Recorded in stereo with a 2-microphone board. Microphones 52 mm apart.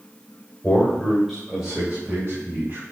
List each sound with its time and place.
0.6 s a man speaking: 25° left (ahead or behind), 2 m; by 2.8 s 35° right (ahead or behind), 3 m